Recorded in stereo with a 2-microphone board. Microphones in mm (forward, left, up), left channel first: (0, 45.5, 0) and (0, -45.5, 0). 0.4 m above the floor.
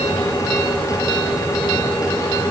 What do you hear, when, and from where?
Only background noise.